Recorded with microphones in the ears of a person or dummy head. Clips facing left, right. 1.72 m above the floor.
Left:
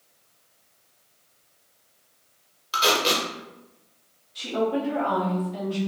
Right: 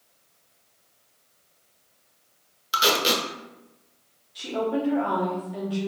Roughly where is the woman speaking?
Centre.